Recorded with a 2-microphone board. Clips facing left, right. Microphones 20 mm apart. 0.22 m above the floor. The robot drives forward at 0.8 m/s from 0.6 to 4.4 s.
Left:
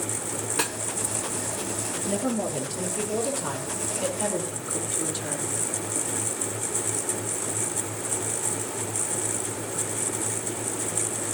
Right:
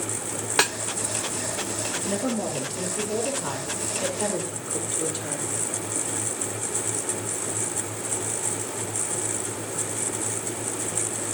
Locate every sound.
0.6 s a snare drum: 45° right (ahead or behind), 0.5 m; by 0.8 s 40° right (ahead or behind), 0.6 m
2.1 s a woman speaking: 15° right (ahead or behind), 5 m